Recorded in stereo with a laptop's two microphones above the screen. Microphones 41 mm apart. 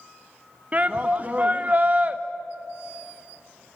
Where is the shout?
35° right (ahead or behind), 1.0 m.